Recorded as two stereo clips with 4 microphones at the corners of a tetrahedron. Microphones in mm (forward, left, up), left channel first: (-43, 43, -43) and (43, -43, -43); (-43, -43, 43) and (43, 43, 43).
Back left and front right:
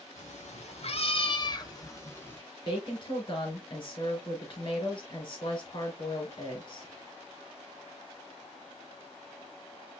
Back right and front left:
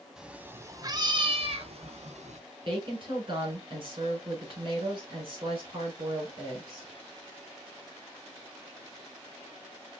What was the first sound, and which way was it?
A cat meowing, 130° left.